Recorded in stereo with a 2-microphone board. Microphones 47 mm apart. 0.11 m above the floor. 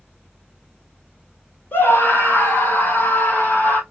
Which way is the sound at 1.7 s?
40° left (ahead or behind).